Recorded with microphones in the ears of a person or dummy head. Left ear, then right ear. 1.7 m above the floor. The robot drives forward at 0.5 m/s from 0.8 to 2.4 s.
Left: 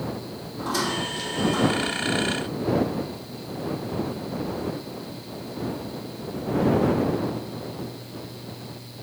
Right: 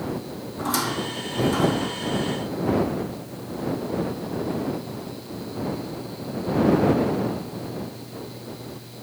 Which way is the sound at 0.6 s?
45° right (ahead or behind).